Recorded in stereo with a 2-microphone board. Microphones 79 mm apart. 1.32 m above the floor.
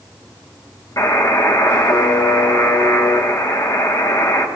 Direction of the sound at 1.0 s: 45° left (ahead or behind).